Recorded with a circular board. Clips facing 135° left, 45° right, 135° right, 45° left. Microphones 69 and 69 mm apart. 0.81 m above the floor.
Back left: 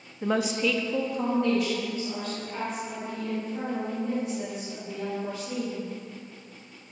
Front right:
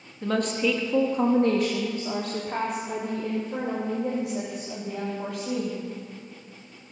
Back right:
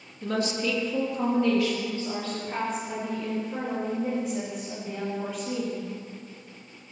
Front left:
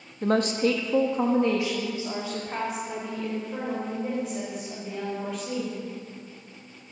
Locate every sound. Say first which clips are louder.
0.2 s a woman speaking: front right 1 dB, front left 5 dB; 65° left, 1.3 m; by 5.8 s 45° right, 6 m